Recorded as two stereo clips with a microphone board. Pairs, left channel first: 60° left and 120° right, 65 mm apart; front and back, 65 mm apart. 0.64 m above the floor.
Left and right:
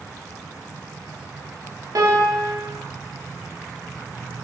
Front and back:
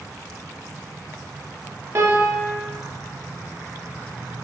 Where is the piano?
135° right, 0.7 m.